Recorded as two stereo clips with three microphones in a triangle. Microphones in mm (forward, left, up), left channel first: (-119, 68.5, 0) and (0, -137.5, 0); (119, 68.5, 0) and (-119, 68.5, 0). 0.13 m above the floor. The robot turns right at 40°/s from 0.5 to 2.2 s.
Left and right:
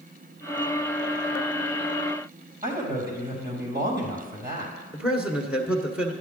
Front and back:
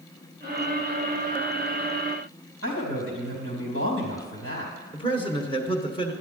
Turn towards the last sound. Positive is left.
turn(degrees=15)